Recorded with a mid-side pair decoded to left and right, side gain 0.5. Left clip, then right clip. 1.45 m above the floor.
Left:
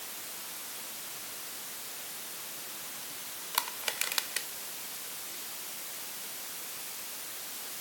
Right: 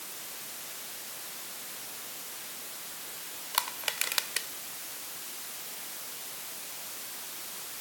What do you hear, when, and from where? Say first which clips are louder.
3.5 s crushing: right 2 dB; 15° right